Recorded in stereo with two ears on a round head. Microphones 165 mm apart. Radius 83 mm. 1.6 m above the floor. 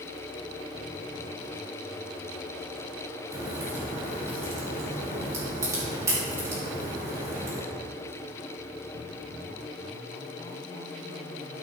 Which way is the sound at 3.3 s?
15° right (ahead or behind).